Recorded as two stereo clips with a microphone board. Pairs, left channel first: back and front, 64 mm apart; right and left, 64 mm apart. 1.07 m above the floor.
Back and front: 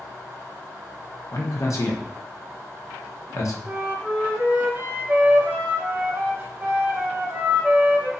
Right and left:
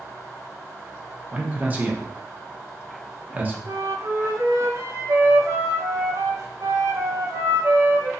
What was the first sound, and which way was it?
A man speaking, 150° left.